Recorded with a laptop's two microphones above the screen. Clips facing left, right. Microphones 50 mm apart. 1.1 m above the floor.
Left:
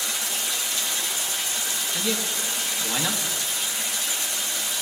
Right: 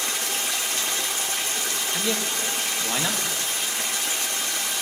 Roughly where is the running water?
Right.